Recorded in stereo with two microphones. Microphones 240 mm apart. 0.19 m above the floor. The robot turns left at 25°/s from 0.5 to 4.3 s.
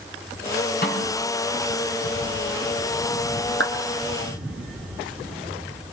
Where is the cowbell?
I don't hear a cowbell.